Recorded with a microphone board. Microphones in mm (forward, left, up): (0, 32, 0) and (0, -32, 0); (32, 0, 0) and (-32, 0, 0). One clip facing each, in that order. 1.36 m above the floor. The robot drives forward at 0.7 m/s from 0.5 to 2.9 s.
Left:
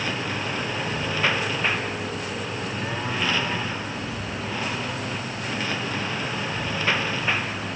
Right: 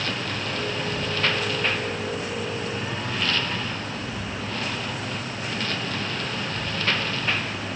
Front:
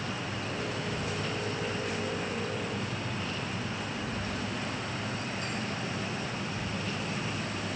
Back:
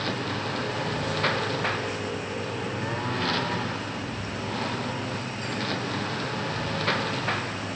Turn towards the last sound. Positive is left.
turn(degrees=170)